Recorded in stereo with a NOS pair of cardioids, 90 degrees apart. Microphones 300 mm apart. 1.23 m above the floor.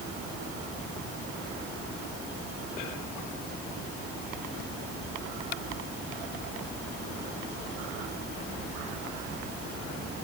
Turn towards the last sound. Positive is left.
No sound to turn to.